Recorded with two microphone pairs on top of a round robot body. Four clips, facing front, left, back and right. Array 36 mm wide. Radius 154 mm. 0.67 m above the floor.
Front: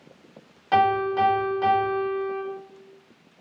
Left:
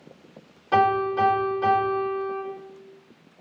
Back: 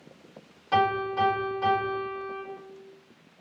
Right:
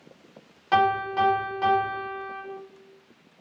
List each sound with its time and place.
0.7 s a piano: 55° right, 1.5 m